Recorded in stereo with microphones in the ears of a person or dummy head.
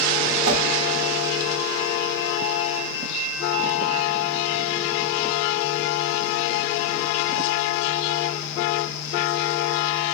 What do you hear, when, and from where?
0.5 s a whoosh: 80° right, 0.8 m